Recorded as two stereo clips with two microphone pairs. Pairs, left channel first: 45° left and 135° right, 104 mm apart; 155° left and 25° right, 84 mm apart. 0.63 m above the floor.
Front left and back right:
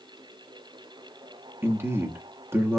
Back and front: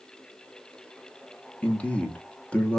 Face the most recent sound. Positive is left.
turn(degrees=-155)